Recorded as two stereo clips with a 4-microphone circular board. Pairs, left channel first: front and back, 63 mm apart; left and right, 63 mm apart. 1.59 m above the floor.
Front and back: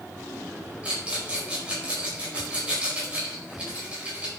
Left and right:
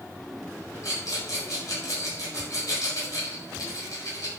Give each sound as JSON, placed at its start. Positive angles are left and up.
{"t": 0.8, "sound": "a rattle", "azimuth_deg": 110, "distance_m": 4.5}